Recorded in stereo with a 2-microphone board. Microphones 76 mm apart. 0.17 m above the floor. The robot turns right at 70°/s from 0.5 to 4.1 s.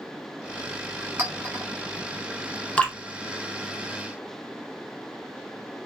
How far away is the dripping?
About 0.7 m.